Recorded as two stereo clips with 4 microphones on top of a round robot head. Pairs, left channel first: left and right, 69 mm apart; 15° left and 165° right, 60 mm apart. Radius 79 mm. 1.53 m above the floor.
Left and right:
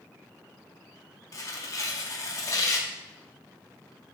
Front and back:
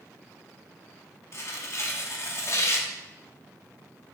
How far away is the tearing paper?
About 0.6 m.